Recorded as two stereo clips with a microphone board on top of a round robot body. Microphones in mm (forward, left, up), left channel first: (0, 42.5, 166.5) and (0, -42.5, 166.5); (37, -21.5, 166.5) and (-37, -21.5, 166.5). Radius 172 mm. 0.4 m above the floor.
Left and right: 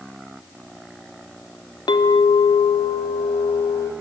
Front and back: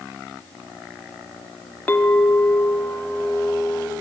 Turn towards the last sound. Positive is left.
turn(degrees=65)